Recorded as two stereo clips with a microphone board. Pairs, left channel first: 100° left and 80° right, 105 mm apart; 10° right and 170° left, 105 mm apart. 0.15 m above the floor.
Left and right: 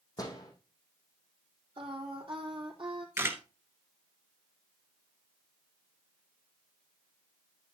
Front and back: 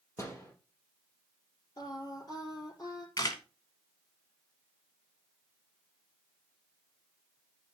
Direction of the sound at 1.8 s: 55° right.